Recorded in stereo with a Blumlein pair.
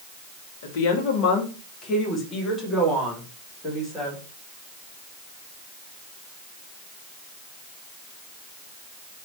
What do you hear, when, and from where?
0.6 s a woman speaking: 55° left, 1.1 m; by 4.2 s straight ahead, 3 m